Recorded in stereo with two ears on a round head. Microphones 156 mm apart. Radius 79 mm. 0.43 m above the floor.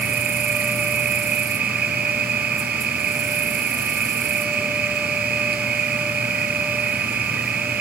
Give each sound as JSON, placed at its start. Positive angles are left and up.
{"t": 0.0, "sound": "an insect", "side_deg": -60}